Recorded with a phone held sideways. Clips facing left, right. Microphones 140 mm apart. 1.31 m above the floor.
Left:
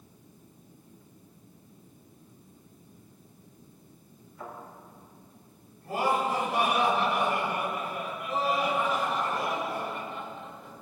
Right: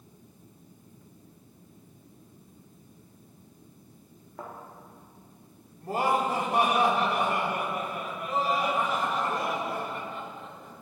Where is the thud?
70° right (ahead or behind), 4 m.